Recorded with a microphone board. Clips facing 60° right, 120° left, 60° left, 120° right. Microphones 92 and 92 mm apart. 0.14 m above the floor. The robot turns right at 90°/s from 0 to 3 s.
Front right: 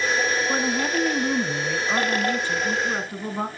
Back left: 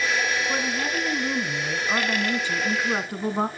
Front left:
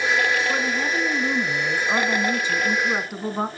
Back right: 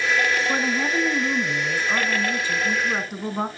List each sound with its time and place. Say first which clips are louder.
0.5 s a woman speaking: front right 3 dB, back right 1 dB; 95° right, 1.1 m; by 3.5 s 135° left, 1.1 m